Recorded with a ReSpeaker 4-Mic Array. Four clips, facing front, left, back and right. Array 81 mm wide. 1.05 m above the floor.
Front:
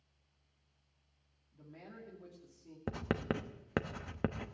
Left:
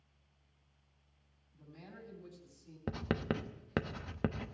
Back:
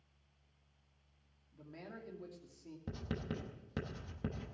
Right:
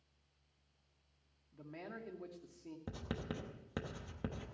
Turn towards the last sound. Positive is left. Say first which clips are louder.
# left 9 dB, front 7 dB
turn(degrees=25)